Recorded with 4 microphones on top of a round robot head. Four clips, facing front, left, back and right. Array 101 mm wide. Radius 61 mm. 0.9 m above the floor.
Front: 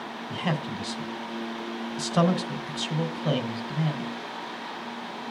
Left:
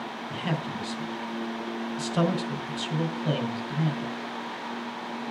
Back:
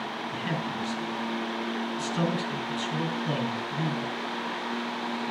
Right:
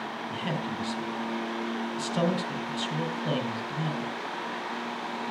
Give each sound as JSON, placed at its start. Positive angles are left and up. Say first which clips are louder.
{"t": 0.3, "sound": "a man speaking", "louder": "left 2 dB, front 4 dB", "azimuth_deg": 0, "distance_m": 3.5}